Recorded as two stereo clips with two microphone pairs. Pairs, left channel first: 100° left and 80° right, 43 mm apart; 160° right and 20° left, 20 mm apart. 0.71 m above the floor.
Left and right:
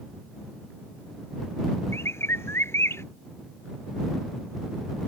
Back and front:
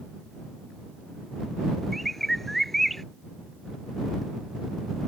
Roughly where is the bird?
Behind left.